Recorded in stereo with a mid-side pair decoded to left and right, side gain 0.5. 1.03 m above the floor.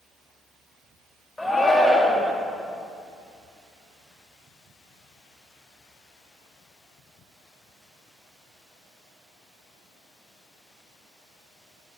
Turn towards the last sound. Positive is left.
turn(degrees=5)